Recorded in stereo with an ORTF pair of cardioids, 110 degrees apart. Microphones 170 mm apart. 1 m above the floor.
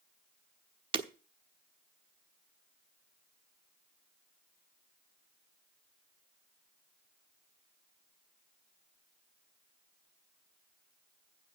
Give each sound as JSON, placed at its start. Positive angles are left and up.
{"t": 0.9, "sound": "breaking glass", "azimuth_deg": -30, "distance_m": 1.2}